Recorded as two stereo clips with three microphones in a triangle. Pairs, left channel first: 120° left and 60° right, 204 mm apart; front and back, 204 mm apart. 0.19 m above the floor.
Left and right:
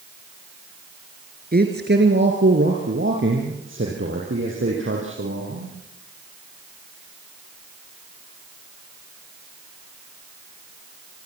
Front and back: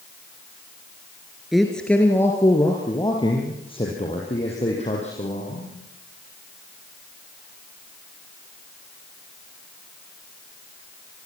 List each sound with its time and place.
1.5 s a man speaking: 90° right, 2.5 m; by 5.7 s 55° right, 7.5 m